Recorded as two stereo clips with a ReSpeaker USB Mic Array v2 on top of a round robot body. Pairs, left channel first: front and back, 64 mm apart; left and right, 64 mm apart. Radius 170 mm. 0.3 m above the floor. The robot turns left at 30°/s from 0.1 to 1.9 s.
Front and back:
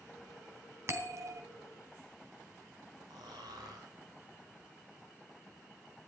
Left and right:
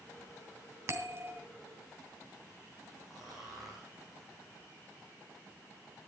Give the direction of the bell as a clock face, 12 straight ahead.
4 o'clock.